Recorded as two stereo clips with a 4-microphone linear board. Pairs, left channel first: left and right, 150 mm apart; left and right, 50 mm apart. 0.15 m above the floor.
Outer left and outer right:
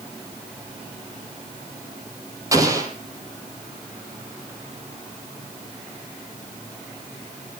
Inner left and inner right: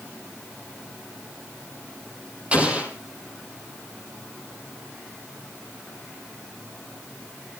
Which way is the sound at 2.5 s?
20° right (ahead or behind).